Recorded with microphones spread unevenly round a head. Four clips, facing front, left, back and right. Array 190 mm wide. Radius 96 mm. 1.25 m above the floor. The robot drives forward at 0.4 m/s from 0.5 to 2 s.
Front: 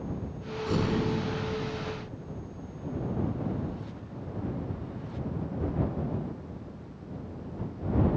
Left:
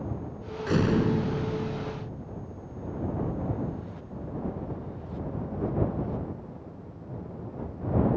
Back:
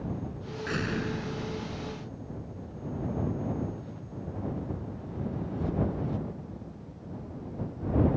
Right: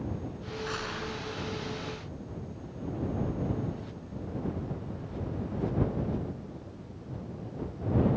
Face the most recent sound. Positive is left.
turn(degrees=80)